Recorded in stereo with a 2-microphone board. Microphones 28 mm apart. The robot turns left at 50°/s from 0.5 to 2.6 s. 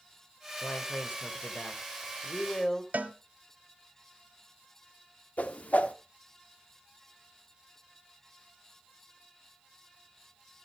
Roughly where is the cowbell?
Right.